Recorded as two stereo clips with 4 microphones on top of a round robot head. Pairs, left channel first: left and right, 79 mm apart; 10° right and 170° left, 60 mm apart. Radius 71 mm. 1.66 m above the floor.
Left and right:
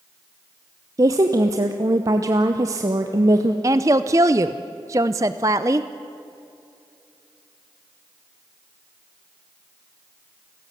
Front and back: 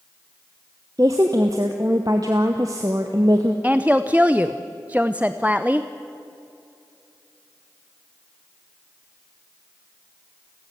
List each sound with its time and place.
1.0 s a woman speaking: 130° right, 0.8 m
3.6 s a woman speaking: 115° right, 0.6 m